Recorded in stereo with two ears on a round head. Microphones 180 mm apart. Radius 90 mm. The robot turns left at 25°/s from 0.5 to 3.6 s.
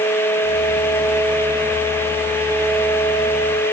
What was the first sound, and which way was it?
Only background noise.